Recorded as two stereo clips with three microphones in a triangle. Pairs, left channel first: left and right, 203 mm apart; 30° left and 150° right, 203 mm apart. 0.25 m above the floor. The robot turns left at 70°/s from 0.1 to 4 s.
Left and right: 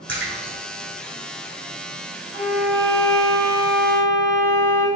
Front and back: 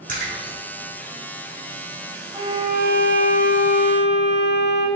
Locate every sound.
0.1 s a splash: 105° right, 1.1 m; by 0.6 s 140° right, 1.1 m
2.3 s a violin: 80° right, 0.6 m; by 4.9 s 160° left, 0.6 m